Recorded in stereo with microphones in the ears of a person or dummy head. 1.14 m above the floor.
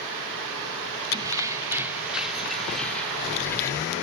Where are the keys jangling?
20° right (ahead or behind), 2.0 m; by 3.9 s 20° left (ahead or behind), 2.5 m.